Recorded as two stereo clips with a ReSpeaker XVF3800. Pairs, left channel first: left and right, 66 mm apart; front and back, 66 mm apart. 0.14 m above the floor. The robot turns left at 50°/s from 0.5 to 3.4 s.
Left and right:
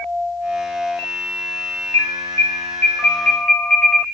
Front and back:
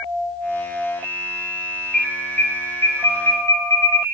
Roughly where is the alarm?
Left.